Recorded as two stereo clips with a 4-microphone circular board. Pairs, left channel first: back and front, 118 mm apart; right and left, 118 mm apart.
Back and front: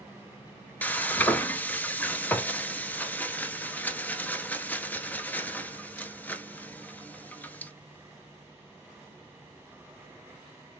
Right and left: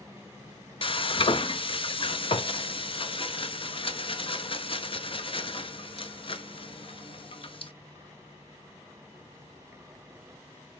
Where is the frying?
105° right, 0.7 m.